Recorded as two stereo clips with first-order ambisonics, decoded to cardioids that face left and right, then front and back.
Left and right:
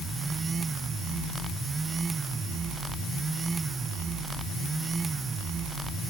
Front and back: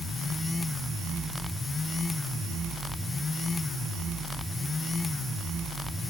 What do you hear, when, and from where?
Only background noise.